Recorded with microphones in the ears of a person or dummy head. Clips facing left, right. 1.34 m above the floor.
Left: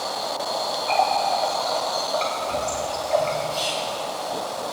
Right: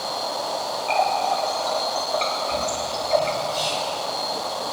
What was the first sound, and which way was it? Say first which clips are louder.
A running tap: even; 5° left (ahead or behind).